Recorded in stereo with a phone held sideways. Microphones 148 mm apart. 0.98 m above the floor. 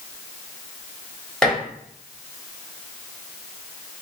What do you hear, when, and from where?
1.4 s dishes clattering: 5° left (ahead or behind), 1.6 m